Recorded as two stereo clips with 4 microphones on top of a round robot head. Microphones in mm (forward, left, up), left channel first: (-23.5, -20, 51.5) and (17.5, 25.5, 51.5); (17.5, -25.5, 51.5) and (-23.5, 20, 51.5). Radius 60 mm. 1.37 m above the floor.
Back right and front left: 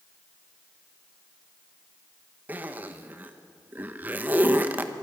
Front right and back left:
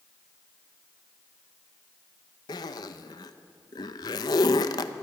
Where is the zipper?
20° right, 0.9 m.